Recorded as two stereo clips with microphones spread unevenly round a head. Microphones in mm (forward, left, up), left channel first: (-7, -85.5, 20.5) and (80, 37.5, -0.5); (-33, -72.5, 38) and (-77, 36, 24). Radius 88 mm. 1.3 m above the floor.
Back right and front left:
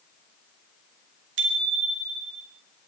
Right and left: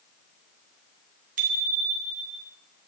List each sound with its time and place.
1.4 s a bicycle bell: 75° left, 2 m; by 2.4 s 85° left, 3 m